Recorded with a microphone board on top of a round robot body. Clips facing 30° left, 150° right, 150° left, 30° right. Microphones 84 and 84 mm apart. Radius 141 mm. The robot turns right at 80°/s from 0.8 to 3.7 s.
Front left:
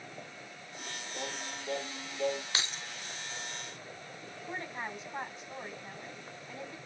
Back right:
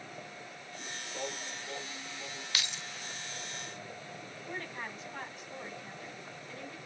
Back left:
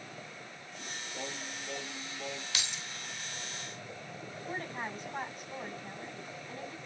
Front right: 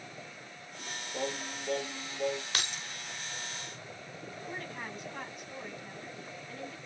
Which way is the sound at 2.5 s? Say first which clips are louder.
Front left 2 dB, front right 3 dB; 20° right.